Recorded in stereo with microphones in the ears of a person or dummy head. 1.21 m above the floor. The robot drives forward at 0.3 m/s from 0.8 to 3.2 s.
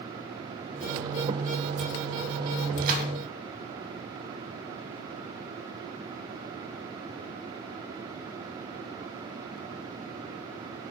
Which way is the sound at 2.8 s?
45° right (ahead or behind).